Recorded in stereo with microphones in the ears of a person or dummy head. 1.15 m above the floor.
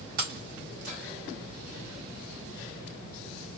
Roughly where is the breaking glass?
Right.